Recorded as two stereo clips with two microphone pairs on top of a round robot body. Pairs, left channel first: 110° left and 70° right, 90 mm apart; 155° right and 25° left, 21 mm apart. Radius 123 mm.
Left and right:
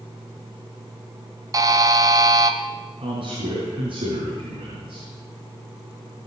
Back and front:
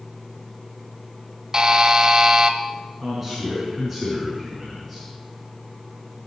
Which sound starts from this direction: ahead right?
A buzzer, at 1.5 s.